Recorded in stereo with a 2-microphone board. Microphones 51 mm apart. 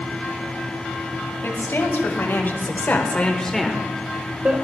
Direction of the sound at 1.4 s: 60° left (ahead or behind).